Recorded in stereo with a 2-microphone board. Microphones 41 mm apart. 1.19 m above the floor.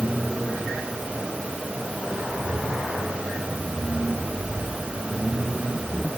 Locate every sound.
Only background noise.